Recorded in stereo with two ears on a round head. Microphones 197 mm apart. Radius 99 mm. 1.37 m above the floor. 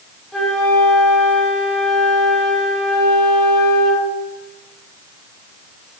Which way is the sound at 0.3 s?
Centre (ahead or behind).